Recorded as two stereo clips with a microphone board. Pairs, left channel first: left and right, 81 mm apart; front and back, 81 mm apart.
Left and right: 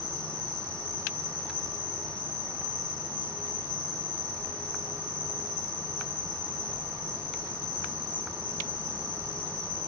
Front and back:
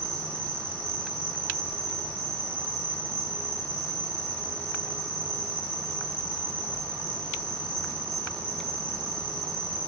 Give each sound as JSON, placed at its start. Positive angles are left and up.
{"t": 0.0, "sound": "an insect", "azimuth_deg": 50, "distance_m": 1.5}